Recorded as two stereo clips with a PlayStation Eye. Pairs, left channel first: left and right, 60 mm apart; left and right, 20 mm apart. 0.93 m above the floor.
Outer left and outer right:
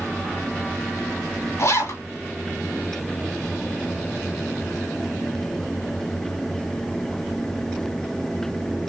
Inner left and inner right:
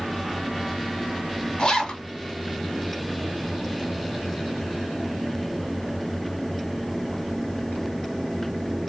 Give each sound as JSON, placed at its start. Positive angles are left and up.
{"t": 1.6, "sound": "a zipper", "side_deg": 55, "distance_m": 1.9}